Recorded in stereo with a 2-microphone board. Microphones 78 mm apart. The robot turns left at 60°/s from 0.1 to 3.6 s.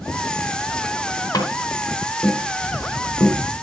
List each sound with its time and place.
1.3 s tapping: 50° left (ahead or behind), 2.5 m; by 3.4 s 40° right (ahead or behind), 2.5 m